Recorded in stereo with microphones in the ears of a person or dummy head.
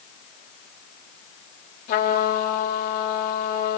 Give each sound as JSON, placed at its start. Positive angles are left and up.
{"t": 1.9, "sound": "a trumpet", "side_deg": 65, "distance_m": 4.5}